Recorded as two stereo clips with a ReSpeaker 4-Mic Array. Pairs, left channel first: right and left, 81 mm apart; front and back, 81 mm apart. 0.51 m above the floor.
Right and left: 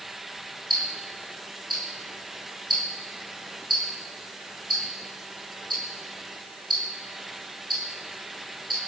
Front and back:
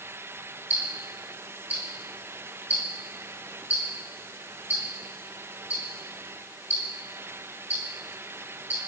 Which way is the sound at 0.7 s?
110° left.